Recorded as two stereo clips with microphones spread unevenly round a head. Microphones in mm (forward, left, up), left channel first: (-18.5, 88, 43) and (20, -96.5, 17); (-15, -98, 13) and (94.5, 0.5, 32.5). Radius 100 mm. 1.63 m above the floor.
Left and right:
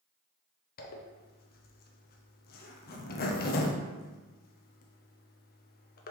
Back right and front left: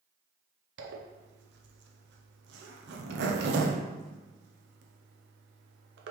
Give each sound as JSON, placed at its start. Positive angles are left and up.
{"t": 0.8, "sound": "a zipper", "azimuth_deg": 55, "distance_m": 0.6}